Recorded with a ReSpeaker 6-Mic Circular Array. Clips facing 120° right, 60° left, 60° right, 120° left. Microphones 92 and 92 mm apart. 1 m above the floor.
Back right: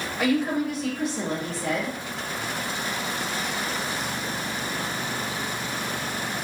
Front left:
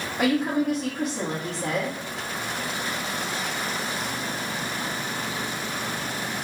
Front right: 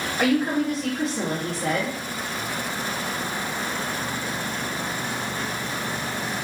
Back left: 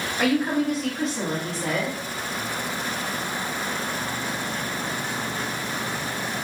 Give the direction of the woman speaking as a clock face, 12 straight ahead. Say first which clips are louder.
Front left 1 dB, front right 1 dB; 11 o'clock.